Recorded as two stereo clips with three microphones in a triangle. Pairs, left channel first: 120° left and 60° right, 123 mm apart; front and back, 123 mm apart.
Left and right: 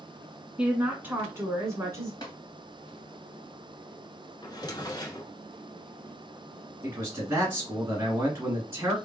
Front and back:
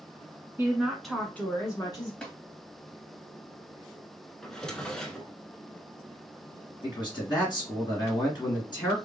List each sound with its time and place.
0.6 s a woman speaking: 130° right, 1.1 m; by 2.1 s 15° right, 1.3 m
2.2 s tapping: 80° left, 2.0 m
4.4 s a drawer: 85° left, 0.8 m
6.8 s a man speaking: 5° right, 2.0 m